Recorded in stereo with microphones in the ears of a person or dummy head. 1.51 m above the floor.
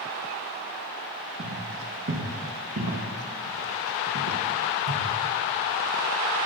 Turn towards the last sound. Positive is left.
turn(degrees=-65)  # may be behind; listen again after turning